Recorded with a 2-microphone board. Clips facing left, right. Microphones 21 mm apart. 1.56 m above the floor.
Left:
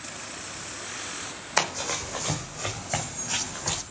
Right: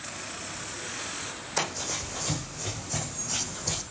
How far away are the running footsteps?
About 3 m.